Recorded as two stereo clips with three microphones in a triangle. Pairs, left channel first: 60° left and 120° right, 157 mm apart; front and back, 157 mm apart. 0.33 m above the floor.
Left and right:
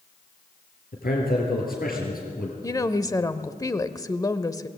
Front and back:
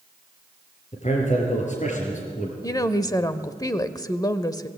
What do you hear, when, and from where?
0.9 s a man speaking: 40° left, 7 m; by 2.5 s 35° left, 6 m
2.6 s a woman speaking: 25° left, 0.9 m